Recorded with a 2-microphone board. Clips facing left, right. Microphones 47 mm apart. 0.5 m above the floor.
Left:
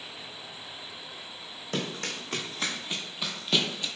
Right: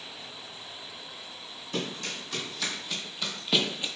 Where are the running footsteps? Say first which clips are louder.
Left 1 dB; 50° left (ahead or behind), 1.1 m; by 3.9 s 25° right (ahead or behind), 0.6 m.